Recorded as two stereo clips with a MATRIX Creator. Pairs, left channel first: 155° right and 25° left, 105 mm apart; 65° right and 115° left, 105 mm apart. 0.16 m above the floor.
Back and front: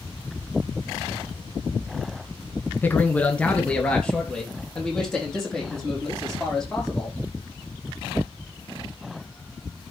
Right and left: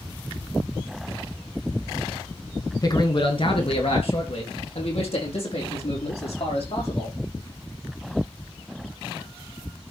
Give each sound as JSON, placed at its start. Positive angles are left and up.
{"t": 2.8, "sound": "a man speaking", "azimuth_deg": -95, "distance_m": 1.3}